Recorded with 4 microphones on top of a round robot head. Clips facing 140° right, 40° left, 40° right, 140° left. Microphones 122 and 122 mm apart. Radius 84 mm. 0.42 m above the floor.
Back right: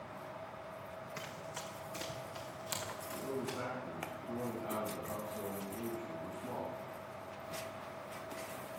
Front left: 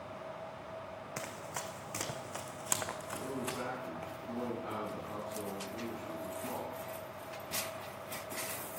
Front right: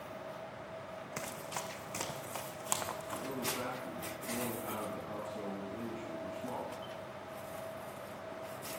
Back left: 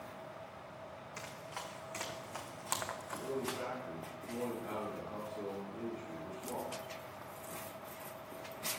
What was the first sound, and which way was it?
Running footsteps, 5° right.